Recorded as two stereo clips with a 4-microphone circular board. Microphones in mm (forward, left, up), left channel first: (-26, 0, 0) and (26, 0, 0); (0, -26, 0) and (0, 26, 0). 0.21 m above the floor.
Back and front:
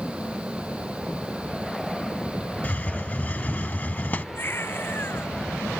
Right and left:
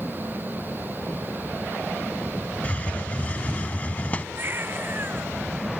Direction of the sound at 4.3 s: 135° left.